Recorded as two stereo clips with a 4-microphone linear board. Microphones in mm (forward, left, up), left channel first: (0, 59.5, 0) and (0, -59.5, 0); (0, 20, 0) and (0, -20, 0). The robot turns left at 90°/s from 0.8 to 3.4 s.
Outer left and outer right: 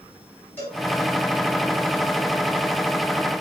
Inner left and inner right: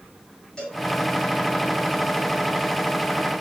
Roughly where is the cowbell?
Centre.